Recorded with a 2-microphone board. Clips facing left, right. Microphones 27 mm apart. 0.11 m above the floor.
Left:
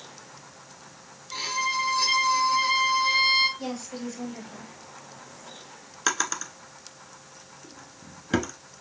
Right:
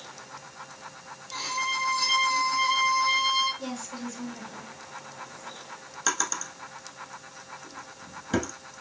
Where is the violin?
30° left (ahead or behind), 0.9 m.